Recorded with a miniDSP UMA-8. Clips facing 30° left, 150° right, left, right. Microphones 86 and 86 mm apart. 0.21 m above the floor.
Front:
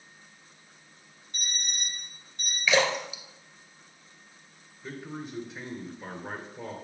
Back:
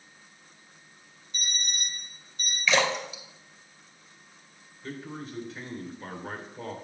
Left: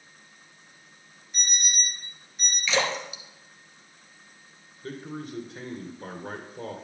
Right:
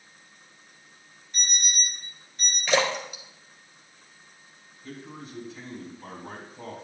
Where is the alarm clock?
5° left, 2.5 m.